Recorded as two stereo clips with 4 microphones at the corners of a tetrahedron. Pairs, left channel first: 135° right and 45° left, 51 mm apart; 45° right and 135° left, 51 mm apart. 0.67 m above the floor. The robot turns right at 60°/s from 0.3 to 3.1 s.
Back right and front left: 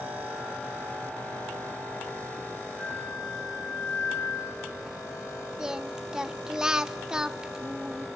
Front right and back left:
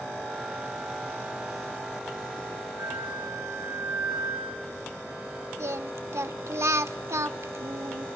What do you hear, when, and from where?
2.8 s a flute: 165° left, 6.5 m; by 5.5 s 175° right, 6.5 m
5.6 s singing: 120° left, 0.8 m